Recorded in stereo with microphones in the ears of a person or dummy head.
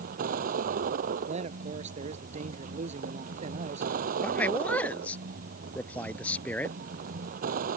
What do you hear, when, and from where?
0.0 s a vehicle: 50° right (ahead or behind)
1.3 s a man speaking: 40° right (ahead or behind)
4.2 s a man speaking: 10° left (ahead or behind)